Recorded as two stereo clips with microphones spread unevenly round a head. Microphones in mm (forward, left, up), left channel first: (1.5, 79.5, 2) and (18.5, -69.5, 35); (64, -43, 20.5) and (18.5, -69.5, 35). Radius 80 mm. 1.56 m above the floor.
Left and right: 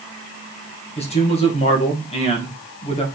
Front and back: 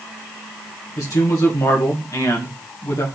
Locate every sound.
1.0 s a man speaking: 45° left, 2 m